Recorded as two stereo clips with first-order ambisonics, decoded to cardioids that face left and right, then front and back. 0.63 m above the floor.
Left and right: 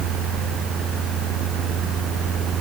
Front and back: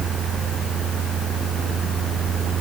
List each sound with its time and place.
Only background noise.